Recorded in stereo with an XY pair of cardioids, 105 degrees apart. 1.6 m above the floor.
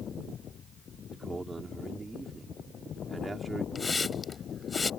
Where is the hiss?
20° left.